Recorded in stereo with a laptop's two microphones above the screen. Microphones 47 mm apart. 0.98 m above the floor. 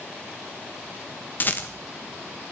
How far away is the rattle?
About 1.1 m.